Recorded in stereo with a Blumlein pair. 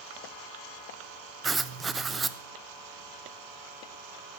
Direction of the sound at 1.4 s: 15° right.